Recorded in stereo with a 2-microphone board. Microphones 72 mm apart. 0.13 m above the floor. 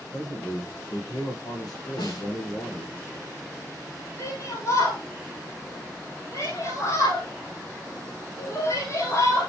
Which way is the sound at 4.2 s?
45° left (ahead or behind).